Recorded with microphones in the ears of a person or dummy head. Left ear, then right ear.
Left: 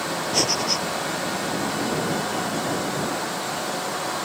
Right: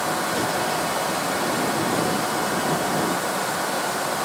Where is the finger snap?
No finger snap in this recording.